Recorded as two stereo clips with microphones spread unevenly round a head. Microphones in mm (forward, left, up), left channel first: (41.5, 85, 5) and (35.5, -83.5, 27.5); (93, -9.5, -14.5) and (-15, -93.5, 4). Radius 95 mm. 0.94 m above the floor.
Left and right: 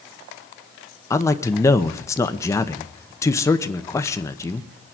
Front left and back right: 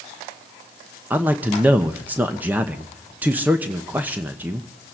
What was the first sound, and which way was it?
A man speaking, 135° left.